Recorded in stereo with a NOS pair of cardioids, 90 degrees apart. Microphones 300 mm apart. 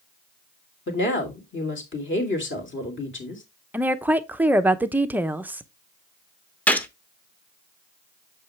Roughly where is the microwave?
I don't hear a microwave.